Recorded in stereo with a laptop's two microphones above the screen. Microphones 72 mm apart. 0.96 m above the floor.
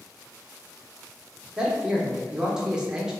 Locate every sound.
1.6 s a man speaking: 10° right (ahead or behind), 0.7 m